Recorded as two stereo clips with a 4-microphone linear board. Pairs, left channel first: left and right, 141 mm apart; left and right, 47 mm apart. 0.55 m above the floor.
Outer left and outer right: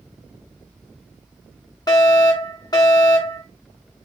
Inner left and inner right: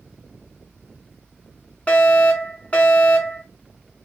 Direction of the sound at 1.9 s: 30° left (ahead or behind).